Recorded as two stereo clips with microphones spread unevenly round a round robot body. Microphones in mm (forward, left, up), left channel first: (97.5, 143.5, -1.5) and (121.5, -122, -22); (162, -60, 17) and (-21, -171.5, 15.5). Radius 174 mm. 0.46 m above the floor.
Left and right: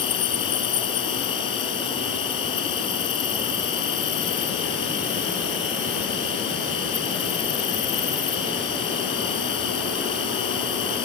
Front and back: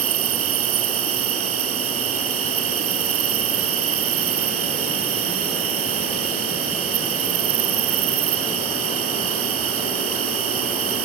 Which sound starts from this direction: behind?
An insect, at 0.0 s.